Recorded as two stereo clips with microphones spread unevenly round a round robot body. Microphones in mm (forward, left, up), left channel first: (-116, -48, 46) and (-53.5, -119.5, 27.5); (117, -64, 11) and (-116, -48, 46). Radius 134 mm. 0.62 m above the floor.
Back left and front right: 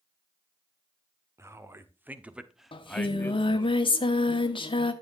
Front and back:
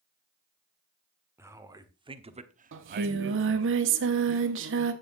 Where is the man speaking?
100° right, 1.8 m; by 3.7 s straight behind, 1.1 m.